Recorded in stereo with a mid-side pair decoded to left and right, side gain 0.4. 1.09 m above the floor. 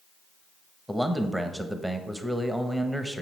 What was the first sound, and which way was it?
A man speaking, 10° right.